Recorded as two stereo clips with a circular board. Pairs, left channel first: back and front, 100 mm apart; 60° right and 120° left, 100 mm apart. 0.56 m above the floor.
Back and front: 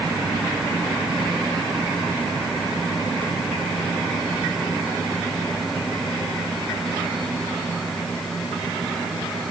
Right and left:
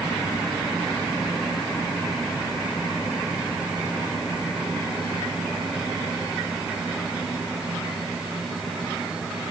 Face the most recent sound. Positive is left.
No sound to turn to.